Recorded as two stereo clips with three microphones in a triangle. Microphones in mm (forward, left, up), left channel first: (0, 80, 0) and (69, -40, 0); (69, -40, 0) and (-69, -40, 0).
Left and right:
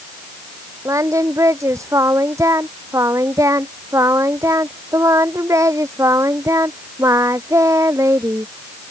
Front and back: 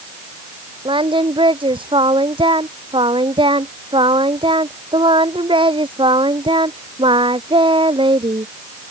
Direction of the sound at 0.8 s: 125° right.